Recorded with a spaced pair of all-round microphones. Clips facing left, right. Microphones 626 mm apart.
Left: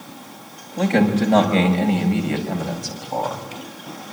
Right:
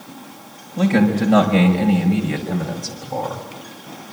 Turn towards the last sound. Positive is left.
turn(degrees=-50)  # may be behind; listen again after turning